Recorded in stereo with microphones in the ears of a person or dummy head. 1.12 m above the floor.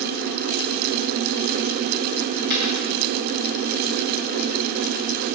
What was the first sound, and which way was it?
A dropped coin, 50° right (ahead or behind).